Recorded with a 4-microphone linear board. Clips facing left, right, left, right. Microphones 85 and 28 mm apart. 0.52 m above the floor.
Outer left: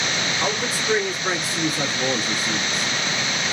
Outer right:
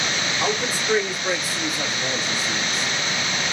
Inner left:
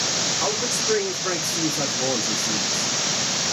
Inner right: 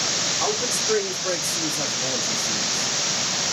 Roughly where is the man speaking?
Centre.